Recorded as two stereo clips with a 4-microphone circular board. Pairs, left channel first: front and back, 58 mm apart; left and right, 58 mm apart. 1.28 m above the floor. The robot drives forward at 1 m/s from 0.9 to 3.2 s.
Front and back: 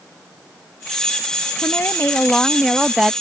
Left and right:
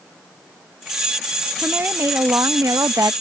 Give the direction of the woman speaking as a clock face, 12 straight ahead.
1 o'clock.